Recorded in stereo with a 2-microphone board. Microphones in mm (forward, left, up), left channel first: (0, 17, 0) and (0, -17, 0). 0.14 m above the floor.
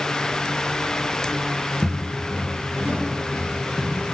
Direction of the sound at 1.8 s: 60° right (ahead or behind).